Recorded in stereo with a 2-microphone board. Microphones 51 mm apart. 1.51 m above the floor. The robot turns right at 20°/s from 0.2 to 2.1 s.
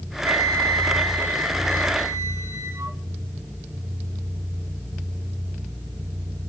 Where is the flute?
100° right, 1.8 m; by 3.0 s 65° right, 1.8 m.